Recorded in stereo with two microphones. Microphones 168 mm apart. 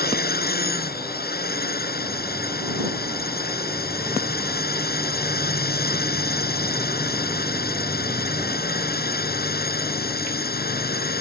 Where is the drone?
65° left (ahead or behind).